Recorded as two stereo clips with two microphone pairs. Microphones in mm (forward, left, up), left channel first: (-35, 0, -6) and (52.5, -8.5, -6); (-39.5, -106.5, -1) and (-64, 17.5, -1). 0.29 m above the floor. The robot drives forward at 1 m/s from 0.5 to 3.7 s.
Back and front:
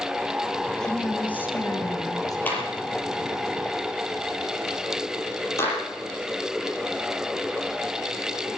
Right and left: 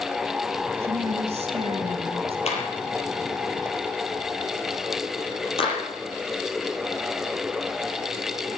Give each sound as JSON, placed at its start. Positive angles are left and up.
{"t": 0.8, "sound": "a woman speaking", "azimuth_deg": 90, "distance_m": 2.0}
{"t": 2.5, "sound": "a clap", "azimuth_deg": -115, "distance_m": 6.0}